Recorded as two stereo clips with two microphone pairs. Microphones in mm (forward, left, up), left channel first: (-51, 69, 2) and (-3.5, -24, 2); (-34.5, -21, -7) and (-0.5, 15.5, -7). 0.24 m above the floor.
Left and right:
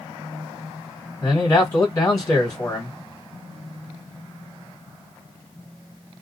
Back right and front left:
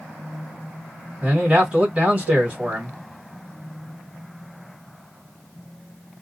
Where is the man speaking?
90° left, 1.8 m.